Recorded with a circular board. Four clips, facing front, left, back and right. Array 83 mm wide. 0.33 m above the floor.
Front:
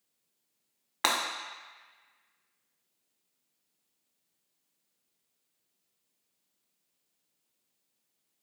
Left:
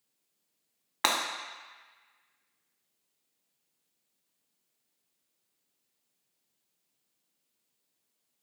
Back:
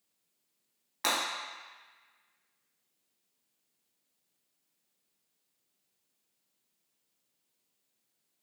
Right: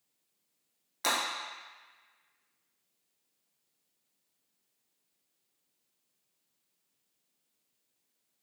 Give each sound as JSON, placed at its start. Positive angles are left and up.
{"t": 1.0, "sound": "breaking glass", "azimuth_deg": 55, "distance_m": 0.6}